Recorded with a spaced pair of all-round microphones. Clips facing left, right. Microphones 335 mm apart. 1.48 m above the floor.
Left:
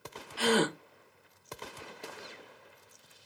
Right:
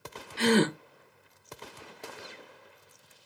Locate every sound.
0.4 s a gasp: 30° right (ahead or behind), 0.5 m